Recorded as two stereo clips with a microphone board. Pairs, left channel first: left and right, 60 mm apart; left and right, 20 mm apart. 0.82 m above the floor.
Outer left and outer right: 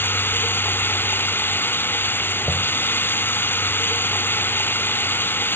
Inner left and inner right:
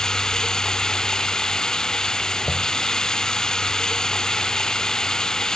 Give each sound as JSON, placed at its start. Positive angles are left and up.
{"t": 0.0, "sound": "running water", "side_deg": 30}
{"t": 2.4, "sound": "knocking", "side_deg": -30}